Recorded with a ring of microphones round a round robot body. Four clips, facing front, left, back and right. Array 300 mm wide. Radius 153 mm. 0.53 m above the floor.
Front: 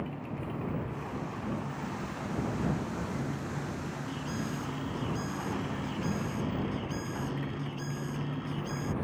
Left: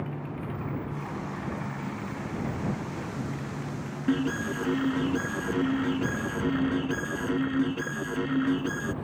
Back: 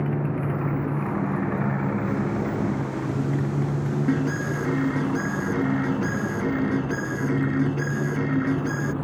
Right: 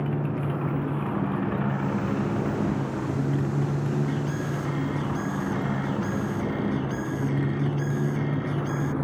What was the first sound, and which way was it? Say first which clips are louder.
A motorcycle: right 7 dB, back 11 dB; 150° right.